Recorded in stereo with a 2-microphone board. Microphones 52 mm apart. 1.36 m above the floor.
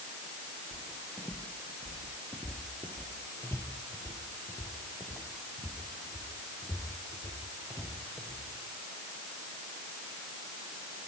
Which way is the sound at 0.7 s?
15° left (ahead or behind).